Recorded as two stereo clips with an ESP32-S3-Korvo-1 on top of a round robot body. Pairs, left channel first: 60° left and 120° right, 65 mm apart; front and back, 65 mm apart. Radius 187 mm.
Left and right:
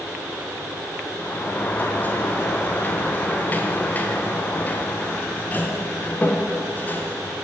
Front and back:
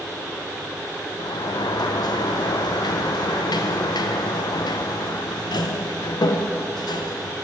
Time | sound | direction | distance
1.2 | a sliding door | 5° right | 0.6 m